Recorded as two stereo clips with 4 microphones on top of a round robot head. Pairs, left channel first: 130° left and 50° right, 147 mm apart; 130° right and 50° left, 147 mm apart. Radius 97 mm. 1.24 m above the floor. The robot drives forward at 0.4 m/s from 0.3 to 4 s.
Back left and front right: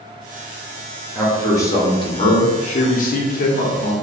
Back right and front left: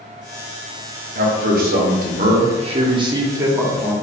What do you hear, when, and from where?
1.1 s a man speaking: 55° left, 1.0 m; by 3.9 s 130° left, 1.0 m